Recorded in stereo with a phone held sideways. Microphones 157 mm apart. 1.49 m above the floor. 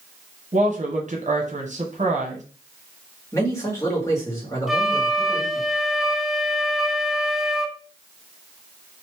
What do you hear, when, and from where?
0.5 s a woman speaking: 50° right (ahead or behind), 1.0 m
3.3 s a man speaking: 20° left (ahead or behind), 1.7 m
4.7 s a flute: centre (ahead or behind), 0.6 m